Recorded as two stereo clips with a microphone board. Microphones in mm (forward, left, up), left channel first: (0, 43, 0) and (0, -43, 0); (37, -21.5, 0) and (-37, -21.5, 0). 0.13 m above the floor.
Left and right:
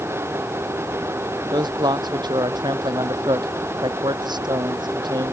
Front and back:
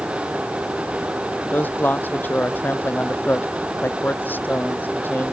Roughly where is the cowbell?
I don't hear a cowbell.